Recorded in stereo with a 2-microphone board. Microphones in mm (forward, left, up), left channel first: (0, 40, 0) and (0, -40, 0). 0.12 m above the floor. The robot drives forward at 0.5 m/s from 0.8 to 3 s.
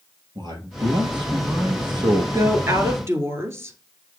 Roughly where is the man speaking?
Right.